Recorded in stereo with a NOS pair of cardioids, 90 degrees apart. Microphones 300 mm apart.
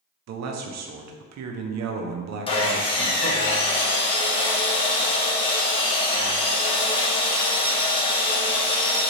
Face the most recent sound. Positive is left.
turn(degrees=20)